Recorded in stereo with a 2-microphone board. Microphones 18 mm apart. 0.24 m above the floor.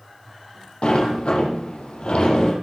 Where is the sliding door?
75° left (ahead or behind), 7.5 m.